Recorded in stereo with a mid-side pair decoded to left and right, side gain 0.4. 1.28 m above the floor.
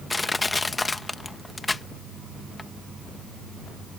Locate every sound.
0.1 s crushing: 25° left